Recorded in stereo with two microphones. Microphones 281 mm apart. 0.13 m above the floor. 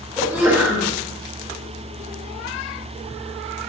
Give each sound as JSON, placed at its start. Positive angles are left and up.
{"t": 0.2, "sound": "a sneeze", "side_deg": -5, "distance_m": 2.5}